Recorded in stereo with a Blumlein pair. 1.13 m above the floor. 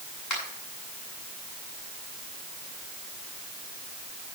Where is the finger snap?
30° left, 8 m.